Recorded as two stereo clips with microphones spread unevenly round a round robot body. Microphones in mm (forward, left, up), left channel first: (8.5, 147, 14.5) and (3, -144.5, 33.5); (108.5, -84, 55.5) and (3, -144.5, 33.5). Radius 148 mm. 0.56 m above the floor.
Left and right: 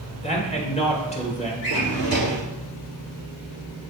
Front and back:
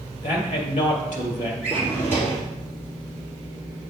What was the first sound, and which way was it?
A man speaking, 25° left.